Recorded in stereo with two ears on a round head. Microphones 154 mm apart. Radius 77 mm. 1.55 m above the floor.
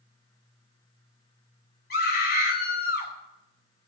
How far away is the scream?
About 6 m.